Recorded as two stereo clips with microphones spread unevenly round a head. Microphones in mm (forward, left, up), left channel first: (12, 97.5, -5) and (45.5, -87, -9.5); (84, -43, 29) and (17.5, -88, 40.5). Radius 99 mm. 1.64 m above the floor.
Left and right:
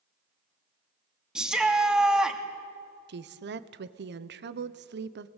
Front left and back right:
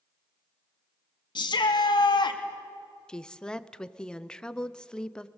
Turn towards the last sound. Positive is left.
turn(degrees=-45)